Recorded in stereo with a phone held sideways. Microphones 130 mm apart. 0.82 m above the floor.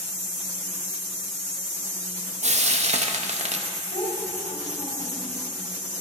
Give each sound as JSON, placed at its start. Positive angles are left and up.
{"t": 2.4, "sound": "frying", "side_deg": -60, "distance_m": 0.6}
{"t": 3.9, "sound": "a child speaking", "side_deg": 75, "distance_m": 3.0}